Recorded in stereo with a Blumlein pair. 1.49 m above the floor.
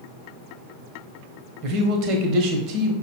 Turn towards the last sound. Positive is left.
turn(degrees=-35)